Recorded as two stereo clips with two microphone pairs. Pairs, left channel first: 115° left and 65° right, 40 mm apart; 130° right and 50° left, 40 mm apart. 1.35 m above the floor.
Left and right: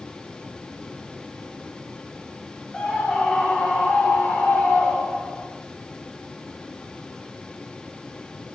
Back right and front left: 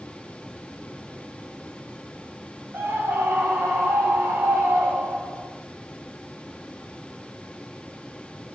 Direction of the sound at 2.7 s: 40° left.